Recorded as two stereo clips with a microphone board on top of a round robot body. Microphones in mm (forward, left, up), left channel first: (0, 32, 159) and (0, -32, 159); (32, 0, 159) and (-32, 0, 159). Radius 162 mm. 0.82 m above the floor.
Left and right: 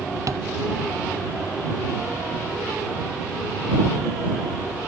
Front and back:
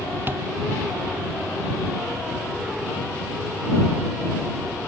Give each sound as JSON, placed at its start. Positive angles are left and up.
{"t": 0.3, "sound": "tapping", "azimuth_deg": -120}